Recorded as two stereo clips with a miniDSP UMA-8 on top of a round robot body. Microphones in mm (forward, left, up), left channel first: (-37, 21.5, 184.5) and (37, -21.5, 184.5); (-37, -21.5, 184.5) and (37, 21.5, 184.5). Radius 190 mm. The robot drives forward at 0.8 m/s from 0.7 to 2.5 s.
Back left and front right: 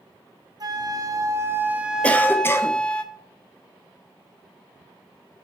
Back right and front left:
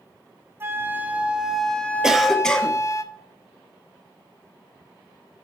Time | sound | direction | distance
0.6 | a flute | 25° right | 1.5 m
2.0 | a cough | 100° left | 1.4 m